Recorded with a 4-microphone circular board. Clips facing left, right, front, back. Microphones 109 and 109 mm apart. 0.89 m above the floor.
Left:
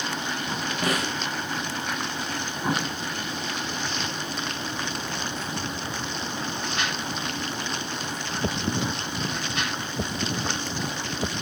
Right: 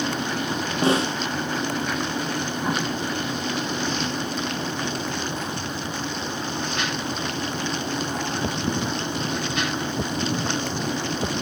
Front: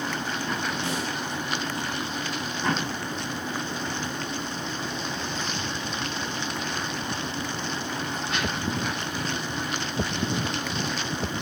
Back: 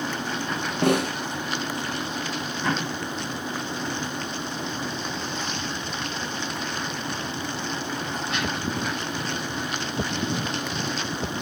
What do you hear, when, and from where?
0.8 s a snare drum: 150° right, 0.6 m